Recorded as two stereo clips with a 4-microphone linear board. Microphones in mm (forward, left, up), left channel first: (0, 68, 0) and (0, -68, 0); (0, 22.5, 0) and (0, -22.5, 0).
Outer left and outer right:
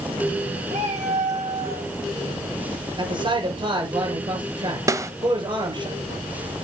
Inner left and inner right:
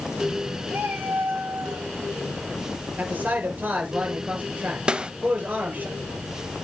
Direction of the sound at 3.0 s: 35° right (ahead or behind).